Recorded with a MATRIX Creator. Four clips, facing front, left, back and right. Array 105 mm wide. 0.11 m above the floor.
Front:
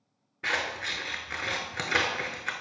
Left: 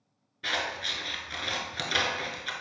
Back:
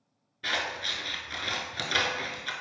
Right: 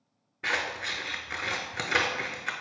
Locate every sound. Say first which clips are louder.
0.4 s scissors: right 1 dB, front 1 dB; 45° right, 0.6 m